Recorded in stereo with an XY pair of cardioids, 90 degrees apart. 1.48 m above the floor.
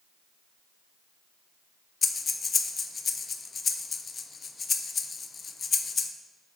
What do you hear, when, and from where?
2.0 s breathing: 45° left, 0.6 m